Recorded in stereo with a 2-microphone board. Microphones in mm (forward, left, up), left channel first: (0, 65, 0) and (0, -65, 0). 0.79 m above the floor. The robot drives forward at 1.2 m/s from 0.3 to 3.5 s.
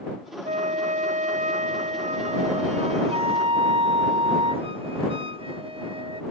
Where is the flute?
70° right (ahead or behind); by 6.2 s 45° right (ahead or behind).